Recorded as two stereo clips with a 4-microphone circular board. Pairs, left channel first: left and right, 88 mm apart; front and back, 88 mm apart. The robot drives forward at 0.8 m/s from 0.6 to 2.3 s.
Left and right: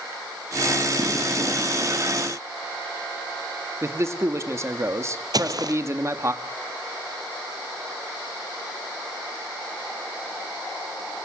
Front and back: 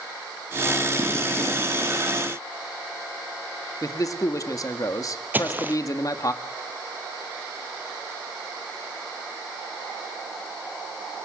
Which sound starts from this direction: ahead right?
A man speaking, at 3.8 s.